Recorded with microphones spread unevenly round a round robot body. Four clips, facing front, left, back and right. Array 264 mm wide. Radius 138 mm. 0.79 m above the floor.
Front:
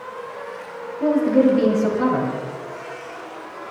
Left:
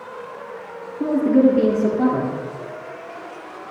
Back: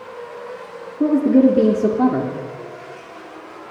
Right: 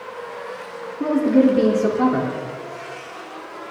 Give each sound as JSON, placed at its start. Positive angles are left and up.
{"t": 1.0, "sound": "a woman speaking", "azimuth_deg": 175, "distance_m": 2.0}